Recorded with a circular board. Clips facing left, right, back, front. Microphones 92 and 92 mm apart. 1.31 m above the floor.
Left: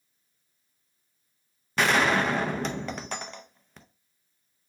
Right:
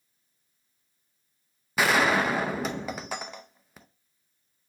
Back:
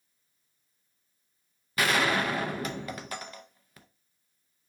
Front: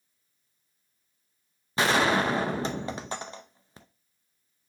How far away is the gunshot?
About 0.5 m.